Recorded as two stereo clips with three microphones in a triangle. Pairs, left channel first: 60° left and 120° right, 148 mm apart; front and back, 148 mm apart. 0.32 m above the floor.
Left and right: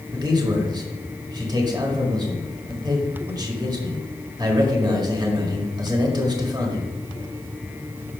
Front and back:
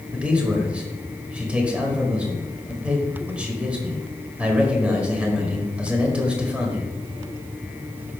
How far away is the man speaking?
About 1.4 m.